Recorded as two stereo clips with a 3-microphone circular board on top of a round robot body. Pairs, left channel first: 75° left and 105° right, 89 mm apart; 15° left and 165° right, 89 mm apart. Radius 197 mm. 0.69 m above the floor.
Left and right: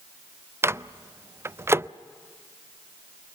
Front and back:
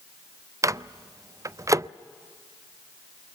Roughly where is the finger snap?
No finger snap in this recording.